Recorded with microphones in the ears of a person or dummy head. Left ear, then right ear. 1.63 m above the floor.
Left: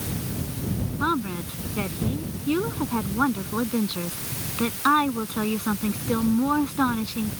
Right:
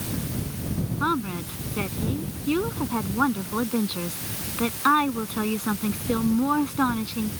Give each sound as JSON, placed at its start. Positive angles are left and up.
{"t": 1.0, "sound": "a woman speaking", "side_deg": -10}